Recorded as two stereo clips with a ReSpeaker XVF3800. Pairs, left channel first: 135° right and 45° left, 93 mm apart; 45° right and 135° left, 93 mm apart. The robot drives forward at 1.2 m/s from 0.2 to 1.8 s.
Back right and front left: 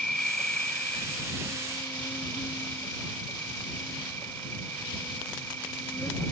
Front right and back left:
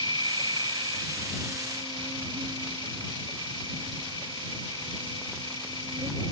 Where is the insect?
145° left; by 6.3 s 160° left.